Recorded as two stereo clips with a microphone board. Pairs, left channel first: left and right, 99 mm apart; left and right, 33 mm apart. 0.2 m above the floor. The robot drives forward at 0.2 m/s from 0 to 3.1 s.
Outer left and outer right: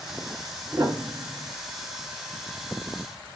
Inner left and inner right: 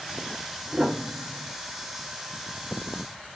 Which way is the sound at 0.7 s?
30° right (ahead or behind).